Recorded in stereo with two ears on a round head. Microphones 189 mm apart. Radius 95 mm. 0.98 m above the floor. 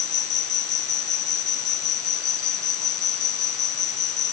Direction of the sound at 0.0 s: 80° left.